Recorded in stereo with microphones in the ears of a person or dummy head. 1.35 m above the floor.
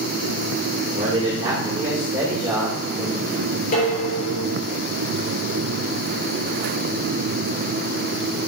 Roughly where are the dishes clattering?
Left.